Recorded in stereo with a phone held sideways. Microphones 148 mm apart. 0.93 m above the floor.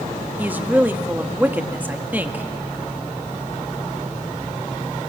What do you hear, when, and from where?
0.4 s a woman speaking: 10° right (ahead or behind), 1.2 m